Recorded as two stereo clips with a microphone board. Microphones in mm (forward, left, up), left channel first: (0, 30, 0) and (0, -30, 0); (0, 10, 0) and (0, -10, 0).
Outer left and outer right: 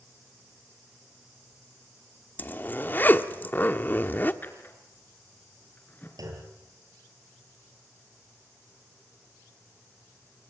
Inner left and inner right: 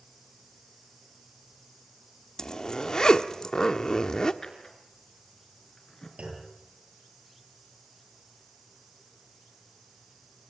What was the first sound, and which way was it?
A zipper, 35° left (ahead or behind).